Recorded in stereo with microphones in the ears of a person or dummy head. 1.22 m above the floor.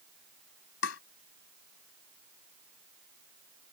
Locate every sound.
0.8 s tapping: 85° left